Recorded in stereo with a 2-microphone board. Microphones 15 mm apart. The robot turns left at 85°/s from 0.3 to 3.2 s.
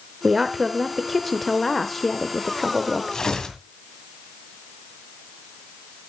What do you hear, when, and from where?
0.2 s a woman speaking: 15° right (ahead or behind), 0.8 m; by 3.2 s 10° right (ahead or behind), 0.8 m
3.1 s tearing paper: 40° left (ahead or behind), 2.0 m; by 3.6 s 50° left (ahead or behind), 2.0 m